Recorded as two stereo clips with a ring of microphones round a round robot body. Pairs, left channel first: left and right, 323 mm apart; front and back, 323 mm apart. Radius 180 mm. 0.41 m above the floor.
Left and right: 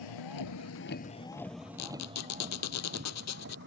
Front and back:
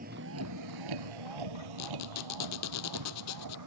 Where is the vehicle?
110° left; by 3.7 s 150° right.